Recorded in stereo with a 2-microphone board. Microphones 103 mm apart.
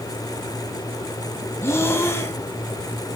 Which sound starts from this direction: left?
Breathing, at 1.6 s.